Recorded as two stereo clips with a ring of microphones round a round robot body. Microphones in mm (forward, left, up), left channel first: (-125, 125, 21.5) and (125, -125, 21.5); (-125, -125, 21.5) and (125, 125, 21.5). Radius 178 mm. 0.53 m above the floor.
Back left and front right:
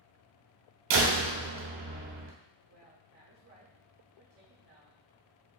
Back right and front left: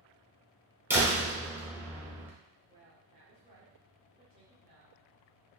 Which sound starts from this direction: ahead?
A woman speaking, at 2.7 s.